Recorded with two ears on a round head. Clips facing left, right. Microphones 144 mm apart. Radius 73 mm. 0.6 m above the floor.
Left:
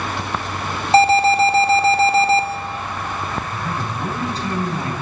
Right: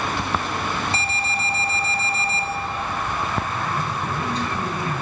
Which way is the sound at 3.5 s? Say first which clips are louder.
Even; 30° left (ahead or behind).